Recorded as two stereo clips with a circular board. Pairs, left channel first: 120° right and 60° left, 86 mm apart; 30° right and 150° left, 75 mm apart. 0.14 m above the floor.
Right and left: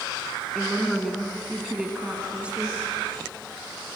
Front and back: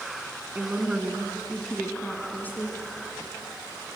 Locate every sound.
0.6 s a woman speaking: 160° left, 1.7 m; by 2.8 s 5° right, 1.9 m